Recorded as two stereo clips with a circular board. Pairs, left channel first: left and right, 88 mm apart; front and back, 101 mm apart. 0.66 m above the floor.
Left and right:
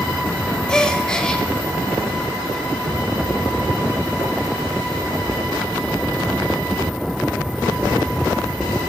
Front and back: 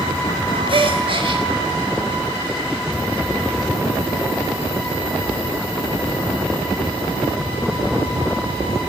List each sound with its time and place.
0.7 s a gasp: 170° left, 1.2 m